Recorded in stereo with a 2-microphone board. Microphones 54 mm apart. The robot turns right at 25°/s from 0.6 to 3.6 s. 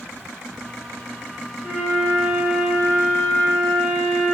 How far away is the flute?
About 2.0 m.